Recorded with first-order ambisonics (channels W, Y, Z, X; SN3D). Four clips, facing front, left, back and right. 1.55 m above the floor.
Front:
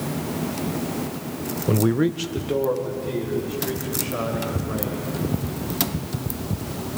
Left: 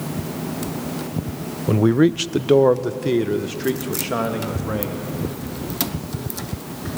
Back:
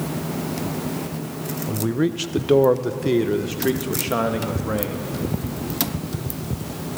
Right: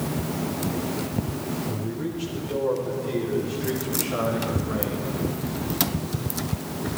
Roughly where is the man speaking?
Ahead left.